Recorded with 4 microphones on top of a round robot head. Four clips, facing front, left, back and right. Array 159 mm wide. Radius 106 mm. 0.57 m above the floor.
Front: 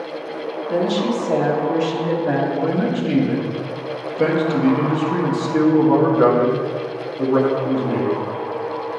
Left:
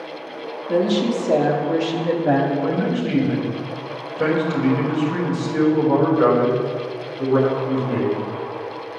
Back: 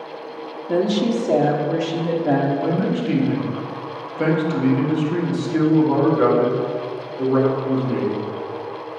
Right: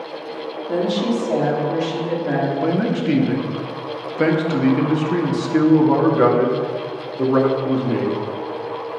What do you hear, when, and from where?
0.7 s a woman speaking: 175° right, 1.3 m; by 2.5 s 130° left, 1.4 m
2.6 s a man speaking: 85° right, 1.3 m